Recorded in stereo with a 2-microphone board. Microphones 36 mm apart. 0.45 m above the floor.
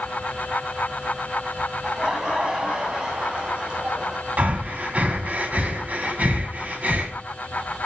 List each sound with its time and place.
1.8 s laughter: 15° right (ahead or behind), 4 m; by 4.2 s 25° right (ahead or behind), 5 m
4.4 s breathing: 45° right (ahead or behind), 2 m